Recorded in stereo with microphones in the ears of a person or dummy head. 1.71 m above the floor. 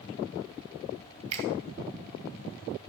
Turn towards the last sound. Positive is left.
turn(degrees=-30)  # may be behind; listen again after turning